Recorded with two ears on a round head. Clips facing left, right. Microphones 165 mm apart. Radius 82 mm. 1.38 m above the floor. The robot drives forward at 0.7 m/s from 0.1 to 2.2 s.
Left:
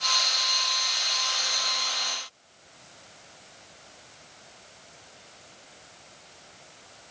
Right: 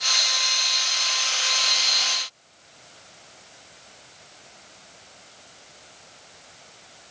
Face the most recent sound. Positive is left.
No sound to turn to.